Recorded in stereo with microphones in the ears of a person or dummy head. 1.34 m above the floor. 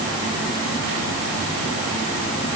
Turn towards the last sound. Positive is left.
No sound to turn to.